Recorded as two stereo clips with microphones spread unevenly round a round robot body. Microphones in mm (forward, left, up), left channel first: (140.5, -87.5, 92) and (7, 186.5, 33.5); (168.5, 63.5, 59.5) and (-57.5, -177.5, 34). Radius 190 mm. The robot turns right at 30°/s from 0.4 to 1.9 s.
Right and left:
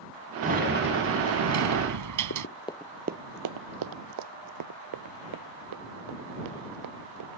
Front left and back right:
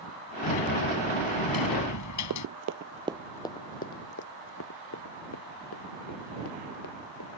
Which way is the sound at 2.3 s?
95° right.